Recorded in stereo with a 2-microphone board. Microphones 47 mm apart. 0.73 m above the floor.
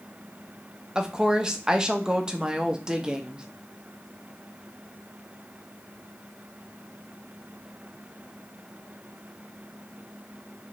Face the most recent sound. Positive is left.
turn(degrees=-15)  # may be behind; listen again after turning